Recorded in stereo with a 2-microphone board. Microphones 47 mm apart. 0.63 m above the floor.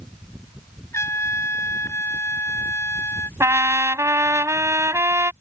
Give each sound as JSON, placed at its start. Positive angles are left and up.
{"t": 0.9, "sound": "a trumpet", "side_deg": 75}
{"t": 3.4, "sound": "a trumpet", "side_deg": -80}